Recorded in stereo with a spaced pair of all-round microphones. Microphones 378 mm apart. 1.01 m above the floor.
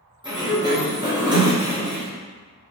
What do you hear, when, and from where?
0.2 s a sliding door: 10° right (ahead or behind), 1.0 m